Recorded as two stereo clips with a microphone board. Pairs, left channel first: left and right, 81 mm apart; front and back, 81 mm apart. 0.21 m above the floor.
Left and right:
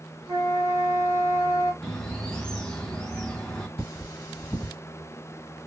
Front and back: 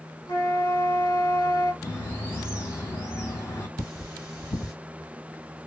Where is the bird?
15° left, 0.8 m.